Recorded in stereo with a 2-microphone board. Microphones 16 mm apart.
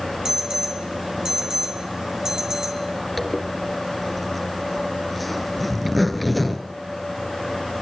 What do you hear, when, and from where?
0.2 s an alarm: 45° right (ahead or behind), 4.5 m
3.2 s a zipper: centre (ahead or behind), 2.5 m